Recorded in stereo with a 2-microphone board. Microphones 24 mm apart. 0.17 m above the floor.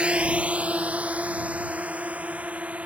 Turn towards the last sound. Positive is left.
turn(degrees=-85)